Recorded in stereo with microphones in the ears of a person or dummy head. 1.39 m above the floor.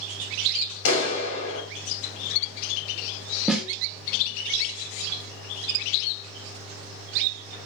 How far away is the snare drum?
About 0.6 m.